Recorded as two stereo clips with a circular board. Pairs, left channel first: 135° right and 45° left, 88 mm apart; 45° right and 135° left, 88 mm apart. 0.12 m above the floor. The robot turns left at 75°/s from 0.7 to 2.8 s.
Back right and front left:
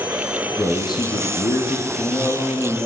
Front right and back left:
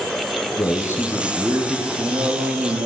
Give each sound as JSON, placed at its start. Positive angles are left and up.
{"t": 0.6, "sound": "a man speaking", "azimuth_deg": -90, "distance_m": 4.5}